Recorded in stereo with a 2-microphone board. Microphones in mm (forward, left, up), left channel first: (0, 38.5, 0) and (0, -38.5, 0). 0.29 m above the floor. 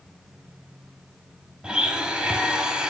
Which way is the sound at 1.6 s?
10° right (ahead or behind).